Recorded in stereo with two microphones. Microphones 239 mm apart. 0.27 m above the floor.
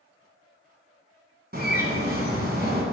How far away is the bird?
About 1.9 m.